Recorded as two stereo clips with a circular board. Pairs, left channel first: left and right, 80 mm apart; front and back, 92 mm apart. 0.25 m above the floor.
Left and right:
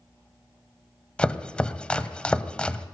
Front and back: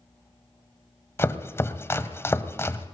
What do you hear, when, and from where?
1.2 s chopping: 25° left, 1.3 m